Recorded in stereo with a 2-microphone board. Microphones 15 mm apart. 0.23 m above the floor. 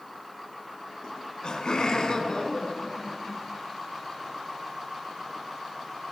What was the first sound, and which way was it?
Laughter, 55° left (ahead or behind).